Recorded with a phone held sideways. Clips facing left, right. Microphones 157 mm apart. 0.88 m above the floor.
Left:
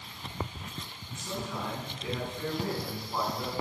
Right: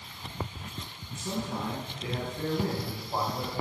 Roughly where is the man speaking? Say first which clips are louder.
Right 3 dB; right.